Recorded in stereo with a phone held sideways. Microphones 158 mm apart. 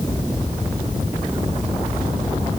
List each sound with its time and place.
Only background noise.